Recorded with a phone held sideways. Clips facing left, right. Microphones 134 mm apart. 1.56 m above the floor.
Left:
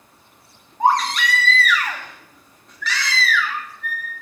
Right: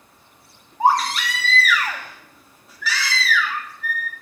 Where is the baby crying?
5° right (ahead or behind), 1.4 m.